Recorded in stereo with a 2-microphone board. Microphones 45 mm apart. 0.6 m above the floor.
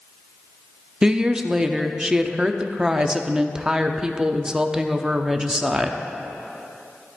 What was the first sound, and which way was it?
A woman speaking, 15° right (ahead or behind).